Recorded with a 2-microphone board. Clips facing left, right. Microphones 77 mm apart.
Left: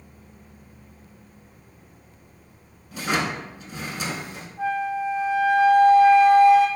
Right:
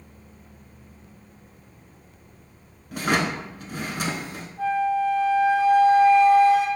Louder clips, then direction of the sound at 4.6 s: Right 3 dB; 15° left (ahead or behind).